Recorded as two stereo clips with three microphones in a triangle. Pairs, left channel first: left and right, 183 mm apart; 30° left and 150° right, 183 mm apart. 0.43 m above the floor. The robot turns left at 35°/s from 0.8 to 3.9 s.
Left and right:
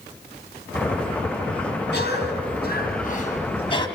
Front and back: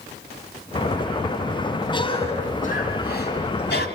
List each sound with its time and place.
1.9 s a cough: 95° left, 3.5 m; by 3.9 s 25° left, 3.5 m